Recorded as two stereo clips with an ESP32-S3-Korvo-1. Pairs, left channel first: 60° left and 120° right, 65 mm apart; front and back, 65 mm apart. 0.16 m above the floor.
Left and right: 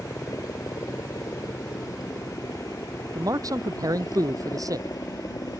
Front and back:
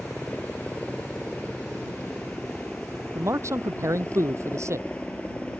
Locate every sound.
0.0 s a helicopter: 65° left; by 5.6 s 70° left
3.1 s a man speaking: 140° right